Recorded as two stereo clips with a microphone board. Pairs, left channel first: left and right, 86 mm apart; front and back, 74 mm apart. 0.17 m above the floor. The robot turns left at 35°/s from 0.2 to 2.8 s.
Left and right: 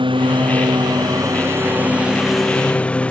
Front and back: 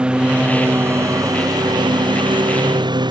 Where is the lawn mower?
105° right; by 3.1 s 165° left.